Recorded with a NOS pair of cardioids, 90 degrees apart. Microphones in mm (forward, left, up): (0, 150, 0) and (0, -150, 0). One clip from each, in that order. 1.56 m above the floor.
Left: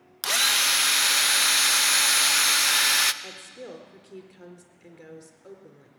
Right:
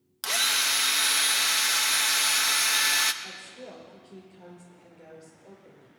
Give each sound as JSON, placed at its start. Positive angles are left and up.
{"t": 0.2, "sound": "a drill", "azimuth_deg": 20, "distance_m": 0.6}
{"t": 3.2, "sound": "a woman speaking", "azimuth_deg": 55, "distance_m": 4.0}